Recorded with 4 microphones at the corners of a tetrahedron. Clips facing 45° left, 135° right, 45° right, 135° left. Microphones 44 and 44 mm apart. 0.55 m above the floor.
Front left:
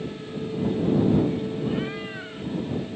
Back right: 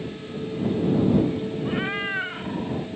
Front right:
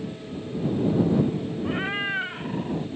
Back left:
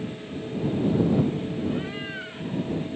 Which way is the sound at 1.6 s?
75° right.